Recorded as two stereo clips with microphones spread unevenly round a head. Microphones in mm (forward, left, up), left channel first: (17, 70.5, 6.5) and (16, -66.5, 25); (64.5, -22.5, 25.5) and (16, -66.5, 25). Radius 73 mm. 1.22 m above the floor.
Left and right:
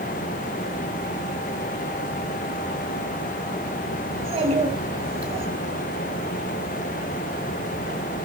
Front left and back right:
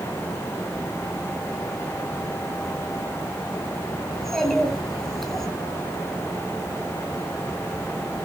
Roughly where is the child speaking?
Ahead right.